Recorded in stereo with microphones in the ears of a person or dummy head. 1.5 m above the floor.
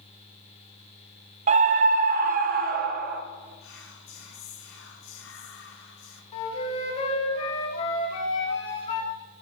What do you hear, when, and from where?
1.5 s a scream: 40° right (ahead or behind), 0.7 m; by 3.2 s 55° right (ahead or behind), 1.5 m
3.6 s whispering: 85° left, 2 m
6.3 s a flute: 35° left (ahead or behind), 2.5 m